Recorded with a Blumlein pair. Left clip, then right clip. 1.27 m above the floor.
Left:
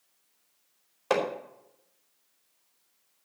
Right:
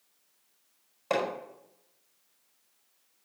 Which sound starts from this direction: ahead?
Hammering, at 1.1 s.